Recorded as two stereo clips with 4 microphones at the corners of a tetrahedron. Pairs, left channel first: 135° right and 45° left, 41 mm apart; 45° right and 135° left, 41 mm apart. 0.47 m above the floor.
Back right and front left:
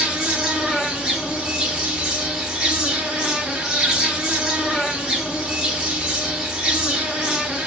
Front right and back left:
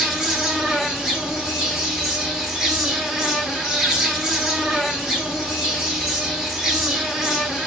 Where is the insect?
85° left, 1.0 m.